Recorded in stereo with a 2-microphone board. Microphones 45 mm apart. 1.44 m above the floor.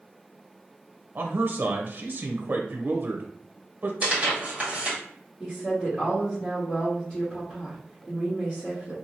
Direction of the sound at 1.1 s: 50° right (ahead or behind).